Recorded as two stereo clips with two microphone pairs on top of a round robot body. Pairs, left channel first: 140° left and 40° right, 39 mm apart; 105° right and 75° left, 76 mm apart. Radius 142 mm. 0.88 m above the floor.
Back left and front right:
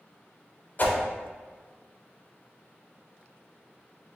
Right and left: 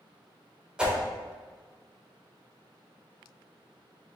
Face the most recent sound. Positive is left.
turn(degrees=150)